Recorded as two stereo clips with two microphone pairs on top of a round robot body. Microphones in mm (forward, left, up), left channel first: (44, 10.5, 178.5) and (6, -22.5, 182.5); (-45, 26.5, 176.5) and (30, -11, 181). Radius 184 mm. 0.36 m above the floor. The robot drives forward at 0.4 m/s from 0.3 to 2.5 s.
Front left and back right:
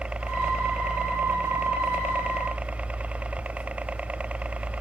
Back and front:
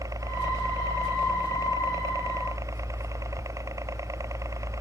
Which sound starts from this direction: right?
A helicopter, at 0.0 s.